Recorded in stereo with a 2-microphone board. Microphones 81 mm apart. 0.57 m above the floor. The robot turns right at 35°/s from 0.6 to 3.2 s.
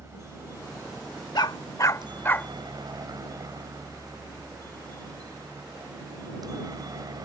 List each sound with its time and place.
0.0 s a helicopter: 35° right (ahead or behind); by 7.3 s 55° right (ahead or behind)
1.4 s a dog barking: 60° left (ahead or behind); by 2.5 s 20° left (ahead or behind)